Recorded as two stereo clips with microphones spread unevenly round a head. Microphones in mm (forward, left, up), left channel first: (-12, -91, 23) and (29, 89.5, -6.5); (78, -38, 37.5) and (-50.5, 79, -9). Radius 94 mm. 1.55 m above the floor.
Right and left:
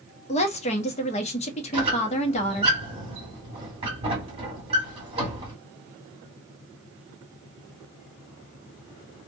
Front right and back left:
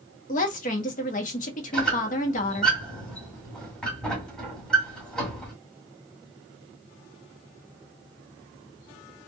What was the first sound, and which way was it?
A woman speaking, 60° right.